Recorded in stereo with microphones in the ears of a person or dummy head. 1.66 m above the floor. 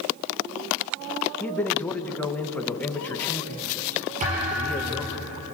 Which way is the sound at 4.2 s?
40° right (ahead or behind).